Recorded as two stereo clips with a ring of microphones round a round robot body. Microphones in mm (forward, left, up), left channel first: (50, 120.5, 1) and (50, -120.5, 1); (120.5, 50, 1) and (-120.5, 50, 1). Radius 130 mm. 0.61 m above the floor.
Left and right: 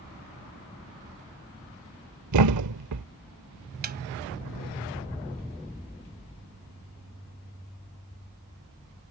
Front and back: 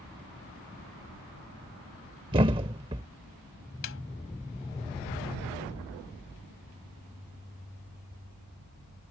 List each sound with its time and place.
2.3 s a thud: 110° right
3.8 s a snare drum: 40° right